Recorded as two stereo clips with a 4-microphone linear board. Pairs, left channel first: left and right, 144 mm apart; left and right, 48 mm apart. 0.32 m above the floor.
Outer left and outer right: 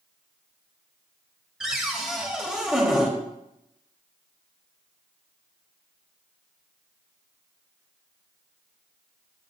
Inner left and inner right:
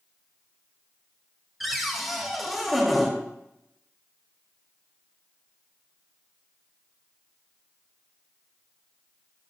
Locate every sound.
1.6 s a cupboard door: 5° right (ahead or behind), 1.3 m